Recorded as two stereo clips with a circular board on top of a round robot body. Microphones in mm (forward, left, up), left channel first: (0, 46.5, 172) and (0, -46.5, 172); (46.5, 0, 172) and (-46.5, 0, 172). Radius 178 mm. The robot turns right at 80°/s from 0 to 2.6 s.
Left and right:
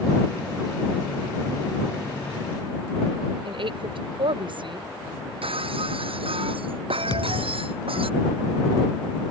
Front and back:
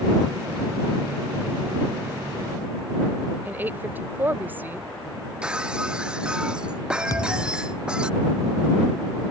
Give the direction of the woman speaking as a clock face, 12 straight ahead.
4 o'clock.